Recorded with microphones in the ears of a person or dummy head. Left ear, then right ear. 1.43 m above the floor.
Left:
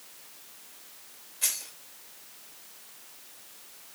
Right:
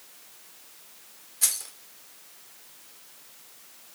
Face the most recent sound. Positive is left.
turn(degrees=-40)  # may be behind; listen again after turning